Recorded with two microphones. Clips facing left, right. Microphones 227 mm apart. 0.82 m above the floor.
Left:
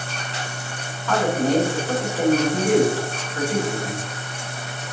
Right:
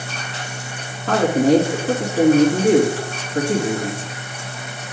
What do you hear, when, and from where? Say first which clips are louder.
1.1 s a man speaking: right 5 dB; 65° right (ahead or behind), 2 m